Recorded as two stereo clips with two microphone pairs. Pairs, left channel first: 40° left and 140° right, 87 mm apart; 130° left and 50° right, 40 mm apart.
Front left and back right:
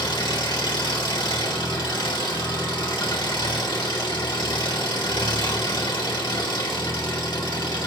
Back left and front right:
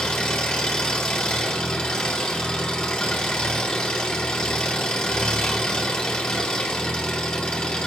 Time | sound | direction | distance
0.0 | an engine running | 60° left | 1.9 m